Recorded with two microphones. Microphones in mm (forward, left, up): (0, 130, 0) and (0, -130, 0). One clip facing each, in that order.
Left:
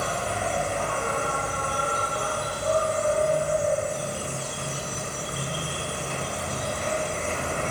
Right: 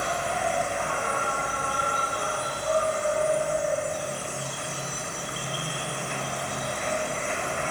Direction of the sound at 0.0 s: 45° left (ahead or behind).